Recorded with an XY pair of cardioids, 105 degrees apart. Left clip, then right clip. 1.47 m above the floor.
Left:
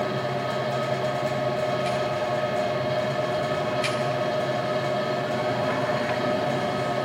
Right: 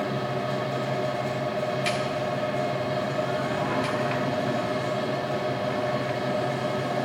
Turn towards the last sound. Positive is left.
turn(degrees=40)